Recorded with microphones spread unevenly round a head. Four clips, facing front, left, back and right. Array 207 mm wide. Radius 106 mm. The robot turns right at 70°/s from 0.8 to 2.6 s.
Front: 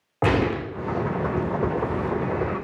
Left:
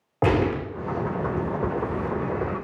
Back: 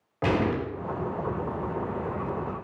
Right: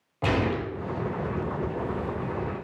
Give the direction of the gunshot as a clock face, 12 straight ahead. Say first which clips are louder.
Left 4 dB, front 3 dB; 10 o'clock.